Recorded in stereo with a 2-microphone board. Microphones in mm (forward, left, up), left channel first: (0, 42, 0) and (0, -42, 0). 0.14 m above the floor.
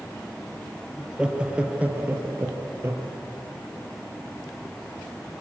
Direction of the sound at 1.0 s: 5° right (ahead or behind).